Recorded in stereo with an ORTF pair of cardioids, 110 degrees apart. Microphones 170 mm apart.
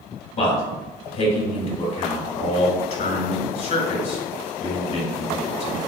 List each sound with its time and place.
0.4 s a man speaking: 50° left, 1.7 m